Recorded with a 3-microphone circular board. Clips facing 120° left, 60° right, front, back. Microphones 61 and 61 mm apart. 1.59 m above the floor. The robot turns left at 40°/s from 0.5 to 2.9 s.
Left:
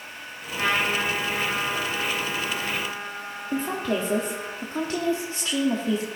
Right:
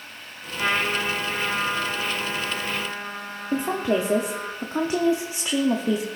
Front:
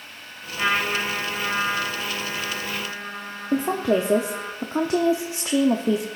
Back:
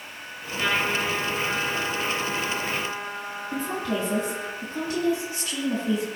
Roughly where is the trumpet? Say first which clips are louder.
Even, front 2 dB; left.